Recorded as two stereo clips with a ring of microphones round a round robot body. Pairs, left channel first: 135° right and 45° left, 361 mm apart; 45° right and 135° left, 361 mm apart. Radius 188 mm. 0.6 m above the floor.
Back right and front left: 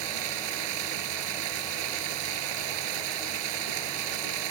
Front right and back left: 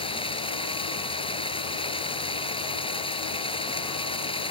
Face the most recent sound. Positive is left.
turn(degrees=30)